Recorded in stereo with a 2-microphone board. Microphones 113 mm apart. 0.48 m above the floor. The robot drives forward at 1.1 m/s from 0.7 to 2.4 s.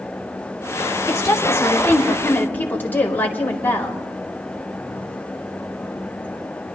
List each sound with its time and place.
1.1 s a woman speaking: 30° left (ahead or behind), 1.3 m; by 4.0 s 15° left (ahead or behind), 2 m